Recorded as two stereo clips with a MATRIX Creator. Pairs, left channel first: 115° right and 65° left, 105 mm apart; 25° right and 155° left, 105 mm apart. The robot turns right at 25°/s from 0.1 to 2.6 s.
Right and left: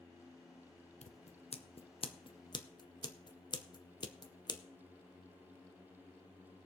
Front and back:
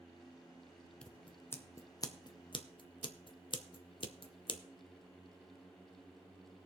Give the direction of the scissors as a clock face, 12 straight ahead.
3 o'clock.